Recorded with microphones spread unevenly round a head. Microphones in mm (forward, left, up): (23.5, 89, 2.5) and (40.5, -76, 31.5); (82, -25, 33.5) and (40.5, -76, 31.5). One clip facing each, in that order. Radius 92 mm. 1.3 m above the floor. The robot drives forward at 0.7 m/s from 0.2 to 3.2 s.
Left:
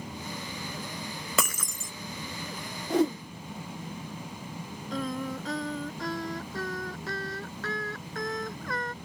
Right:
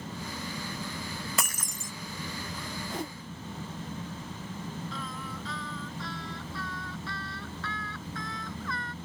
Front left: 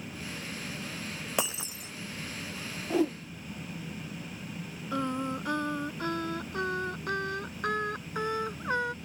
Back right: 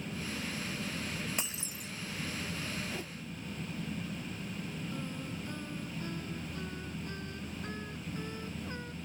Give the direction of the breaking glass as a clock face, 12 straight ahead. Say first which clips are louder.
Left 4 dB, front left 7 dB; 9 o'clock.